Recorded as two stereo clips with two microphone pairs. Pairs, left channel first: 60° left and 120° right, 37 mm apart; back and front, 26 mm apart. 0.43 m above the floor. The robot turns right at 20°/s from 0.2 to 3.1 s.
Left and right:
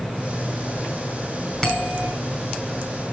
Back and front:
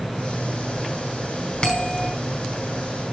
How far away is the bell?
About 3.5 m.